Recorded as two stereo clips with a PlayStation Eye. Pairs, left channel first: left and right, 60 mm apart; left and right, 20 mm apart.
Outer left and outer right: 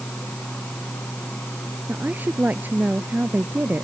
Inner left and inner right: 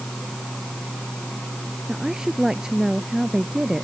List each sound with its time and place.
1.9 s a woman speaking: 30° right (ahead or behind)